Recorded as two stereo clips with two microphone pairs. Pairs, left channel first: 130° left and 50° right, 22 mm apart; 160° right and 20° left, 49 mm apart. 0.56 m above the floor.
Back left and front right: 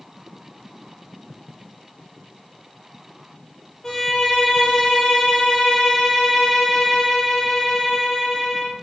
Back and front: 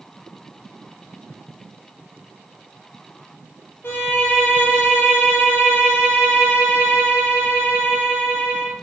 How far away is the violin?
About 1.3 m.